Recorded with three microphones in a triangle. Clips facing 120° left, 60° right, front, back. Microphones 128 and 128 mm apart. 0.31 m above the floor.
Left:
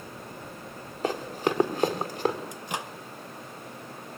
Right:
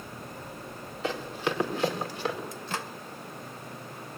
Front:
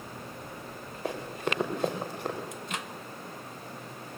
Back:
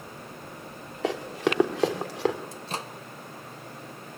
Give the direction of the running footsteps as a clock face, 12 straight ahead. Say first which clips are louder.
Left 3 dB, back 6 dB; 6 o'clock.